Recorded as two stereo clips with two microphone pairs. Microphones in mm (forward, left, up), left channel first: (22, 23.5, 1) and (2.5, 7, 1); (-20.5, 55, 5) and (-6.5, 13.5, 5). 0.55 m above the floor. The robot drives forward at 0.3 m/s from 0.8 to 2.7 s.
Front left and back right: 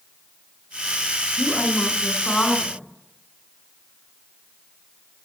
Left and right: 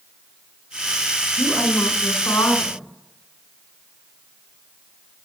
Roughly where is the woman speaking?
Left.